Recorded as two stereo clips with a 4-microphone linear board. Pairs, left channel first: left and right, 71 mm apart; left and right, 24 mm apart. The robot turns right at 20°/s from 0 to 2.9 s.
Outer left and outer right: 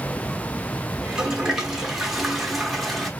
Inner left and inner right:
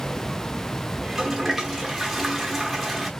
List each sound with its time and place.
1.0 s a toilet flushing: 10° right (ahead or behind), 0.8 m; by 3.1 s centre (ahead or behind), 0.8 m